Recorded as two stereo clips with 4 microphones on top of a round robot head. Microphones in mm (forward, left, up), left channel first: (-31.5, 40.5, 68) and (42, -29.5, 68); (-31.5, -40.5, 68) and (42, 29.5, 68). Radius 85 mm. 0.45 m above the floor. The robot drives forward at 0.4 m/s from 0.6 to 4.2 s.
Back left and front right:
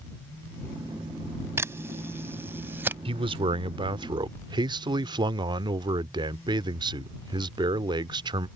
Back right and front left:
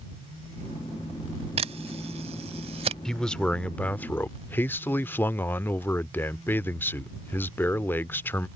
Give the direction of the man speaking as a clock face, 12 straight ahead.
2 o'clock.